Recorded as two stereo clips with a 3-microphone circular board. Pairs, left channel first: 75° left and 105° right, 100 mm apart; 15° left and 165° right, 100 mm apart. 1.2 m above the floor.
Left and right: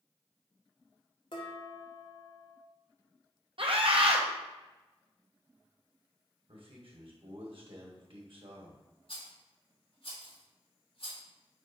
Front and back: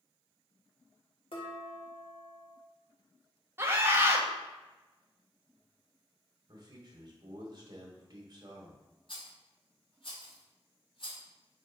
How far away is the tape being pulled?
No tape being pulled in this recording.